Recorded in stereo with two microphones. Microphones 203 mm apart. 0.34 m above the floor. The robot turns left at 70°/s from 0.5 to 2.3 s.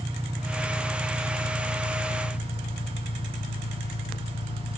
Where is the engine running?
165° right, 1.6 m; by 4.8 s 70° left, 1.6 m.